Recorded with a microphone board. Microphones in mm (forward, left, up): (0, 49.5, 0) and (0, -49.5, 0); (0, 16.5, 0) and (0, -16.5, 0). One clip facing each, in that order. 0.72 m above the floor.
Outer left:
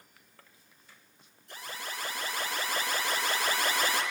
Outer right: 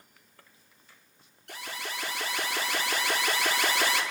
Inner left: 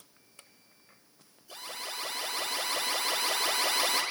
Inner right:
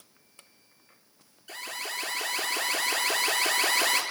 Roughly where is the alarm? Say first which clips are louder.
Outer right 2 dB, inner right 4 dB; right.